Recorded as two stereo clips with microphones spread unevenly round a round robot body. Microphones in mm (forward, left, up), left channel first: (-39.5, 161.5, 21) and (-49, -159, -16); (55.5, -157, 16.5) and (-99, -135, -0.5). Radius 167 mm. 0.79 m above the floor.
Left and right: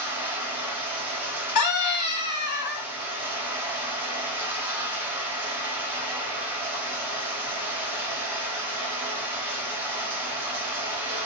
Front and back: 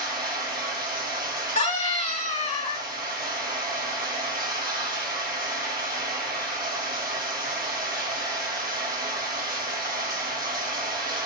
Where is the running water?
175° right, 1.5 m.